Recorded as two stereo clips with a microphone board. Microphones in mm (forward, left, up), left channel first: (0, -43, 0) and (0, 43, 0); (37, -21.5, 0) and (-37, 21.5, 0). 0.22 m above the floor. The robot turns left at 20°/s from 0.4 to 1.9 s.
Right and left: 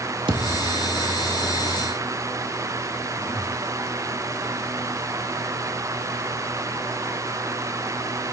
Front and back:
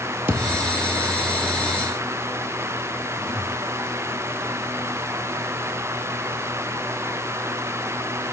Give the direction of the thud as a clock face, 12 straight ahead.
9 o'clock.